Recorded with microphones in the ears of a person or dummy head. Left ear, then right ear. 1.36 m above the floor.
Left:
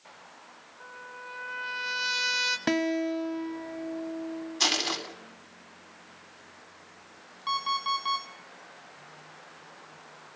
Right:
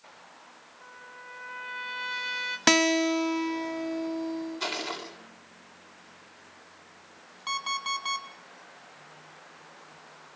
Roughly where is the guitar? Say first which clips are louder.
Right 6 dB; right.